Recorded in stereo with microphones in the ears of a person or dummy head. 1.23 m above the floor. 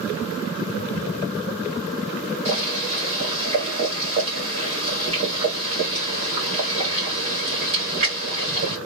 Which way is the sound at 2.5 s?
25° right (ahead or behind).